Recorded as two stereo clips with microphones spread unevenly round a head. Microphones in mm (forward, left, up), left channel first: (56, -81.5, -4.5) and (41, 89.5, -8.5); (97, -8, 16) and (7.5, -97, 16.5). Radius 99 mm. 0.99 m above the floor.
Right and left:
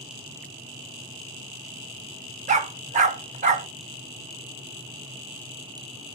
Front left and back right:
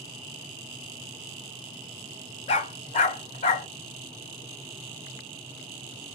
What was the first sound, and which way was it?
A dog barking, 65° left.